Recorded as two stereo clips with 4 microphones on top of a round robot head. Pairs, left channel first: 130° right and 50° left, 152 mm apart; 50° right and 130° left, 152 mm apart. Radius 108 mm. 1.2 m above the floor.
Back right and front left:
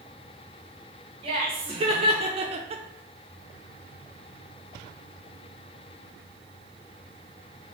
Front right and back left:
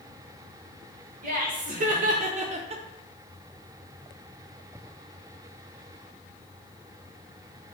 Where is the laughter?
105° left, 1.4 m; by 2.8 s 85° left, 0.6 m.